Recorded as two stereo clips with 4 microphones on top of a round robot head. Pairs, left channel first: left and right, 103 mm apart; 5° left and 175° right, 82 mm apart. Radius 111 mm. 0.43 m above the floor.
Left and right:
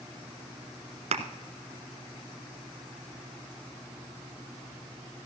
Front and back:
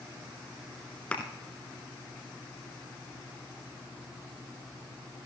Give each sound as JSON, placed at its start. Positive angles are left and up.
{"t": 1.1, "sound": "a thud", "azimuth_deg": -70, "distance_m": 0.8}